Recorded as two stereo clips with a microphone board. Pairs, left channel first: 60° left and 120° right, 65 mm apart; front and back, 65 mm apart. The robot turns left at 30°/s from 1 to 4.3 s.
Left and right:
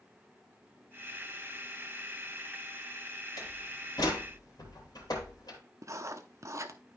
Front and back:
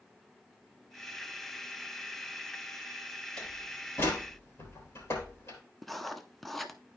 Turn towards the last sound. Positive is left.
turn(degrees=-90)